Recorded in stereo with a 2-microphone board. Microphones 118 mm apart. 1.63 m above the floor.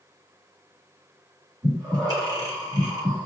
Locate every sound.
1.6 s breathing: 30° right (ahead or behind), 1.5 m